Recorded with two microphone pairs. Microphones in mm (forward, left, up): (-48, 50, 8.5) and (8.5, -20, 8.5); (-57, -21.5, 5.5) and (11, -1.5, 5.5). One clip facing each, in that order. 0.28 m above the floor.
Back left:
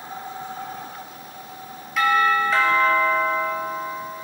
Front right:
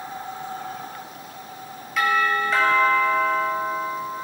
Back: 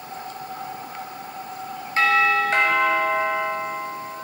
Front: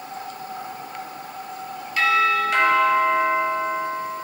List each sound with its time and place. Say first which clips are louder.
2.0 s a doorbell: back left 2 dB, back 1 dB; 140° right, 1.9 m